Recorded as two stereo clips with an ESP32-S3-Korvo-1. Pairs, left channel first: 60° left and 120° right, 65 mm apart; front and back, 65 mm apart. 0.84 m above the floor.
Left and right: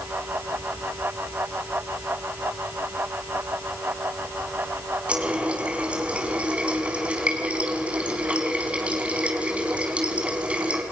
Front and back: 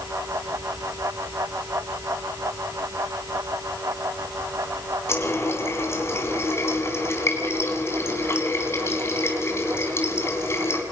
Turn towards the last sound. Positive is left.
turn(degrees=-50)